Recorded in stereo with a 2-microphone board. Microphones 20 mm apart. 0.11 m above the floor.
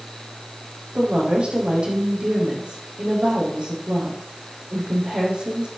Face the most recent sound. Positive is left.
turn(degrees=-70)  # may be behind; listen again after turning